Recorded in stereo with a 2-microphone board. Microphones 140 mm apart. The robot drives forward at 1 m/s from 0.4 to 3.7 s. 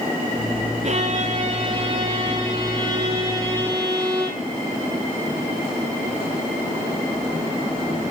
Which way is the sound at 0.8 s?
45° right (ahead or behind).